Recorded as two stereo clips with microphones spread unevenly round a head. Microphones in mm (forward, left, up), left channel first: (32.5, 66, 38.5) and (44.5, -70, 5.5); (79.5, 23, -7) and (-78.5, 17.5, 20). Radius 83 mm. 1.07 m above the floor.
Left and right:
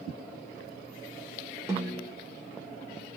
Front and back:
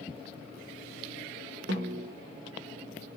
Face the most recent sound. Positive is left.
turn(degrees=-150)